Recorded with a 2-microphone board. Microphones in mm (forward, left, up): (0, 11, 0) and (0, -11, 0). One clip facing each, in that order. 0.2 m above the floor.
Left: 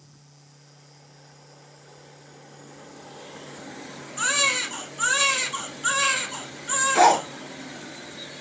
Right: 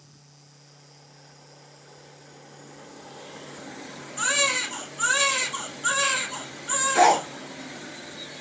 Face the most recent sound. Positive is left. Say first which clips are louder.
# left 1 dB
turn(degrees=25)  # may be behind; listen again after turning